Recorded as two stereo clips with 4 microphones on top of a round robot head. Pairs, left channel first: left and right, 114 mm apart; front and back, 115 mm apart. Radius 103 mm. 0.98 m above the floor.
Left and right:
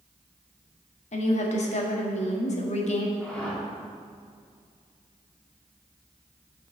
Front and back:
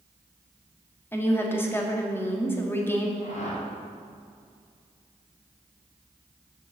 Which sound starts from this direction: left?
A woman speaking, at 1.1 s.